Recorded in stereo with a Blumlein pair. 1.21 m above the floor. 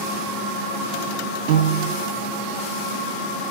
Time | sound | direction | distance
1.5 | a piano | 45° right | 0.8 m